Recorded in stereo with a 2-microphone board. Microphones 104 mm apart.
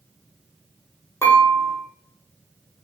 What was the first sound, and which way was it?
Dishes clattering, 30° left (ahead or behind).